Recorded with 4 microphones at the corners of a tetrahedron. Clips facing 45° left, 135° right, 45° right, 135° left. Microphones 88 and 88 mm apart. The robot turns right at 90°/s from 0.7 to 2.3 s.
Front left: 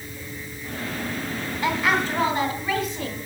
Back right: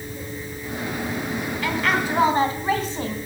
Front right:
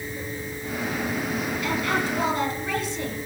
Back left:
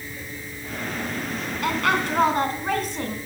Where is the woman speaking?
110° left, 2.5 m; by 3.2 s 170° left, 2.5 m.